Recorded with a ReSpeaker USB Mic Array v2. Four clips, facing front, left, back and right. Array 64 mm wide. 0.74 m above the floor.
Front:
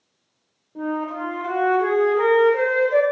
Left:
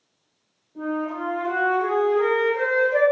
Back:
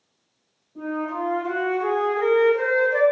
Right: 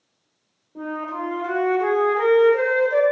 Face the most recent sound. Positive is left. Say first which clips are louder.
# left 1 dB, front 1 dB
turn(degrees=-25)